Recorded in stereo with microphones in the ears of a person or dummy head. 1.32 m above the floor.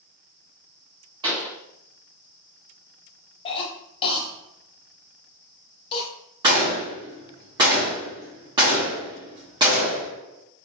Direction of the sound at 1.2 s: 25° right (ahead or behind).